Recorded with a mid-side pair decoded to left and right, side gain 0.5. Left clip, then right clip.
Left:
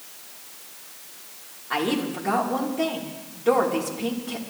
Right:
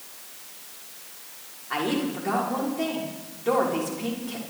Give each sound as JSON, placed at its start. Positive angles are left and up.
{"t": 1.7, "sound": "a woman speaking", "azimuth_deg": 15, "distance_m": 5.5}